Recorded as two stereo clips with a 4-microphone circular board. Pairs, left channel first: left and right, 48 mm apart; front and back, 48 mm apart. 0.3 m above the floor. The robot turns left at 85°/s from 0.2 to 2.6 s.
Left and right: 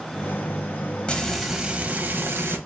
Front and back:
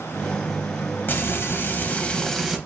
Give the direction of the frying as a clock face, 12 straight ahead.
11 o'clock.